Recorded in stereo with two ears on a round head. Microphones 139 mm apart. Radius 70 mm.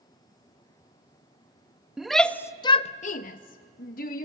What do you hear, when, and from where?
2.0 s a shout: 5° right (ahead or behind), 0.7 m; by 4.2 s 55° left (ahead or behind), 1.1 m